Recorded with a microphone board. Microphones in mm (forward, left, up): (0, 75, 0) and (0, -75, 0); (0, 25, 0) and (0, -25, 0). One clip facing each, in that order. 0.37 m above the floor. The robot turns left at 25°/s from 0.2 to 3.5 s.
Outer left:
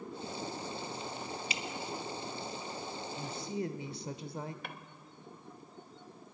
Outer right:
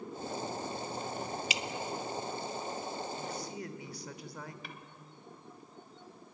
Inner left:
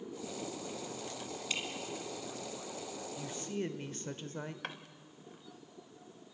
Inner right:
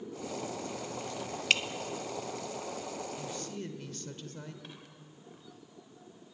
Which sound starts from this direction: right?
Dripping, at 1.5 s.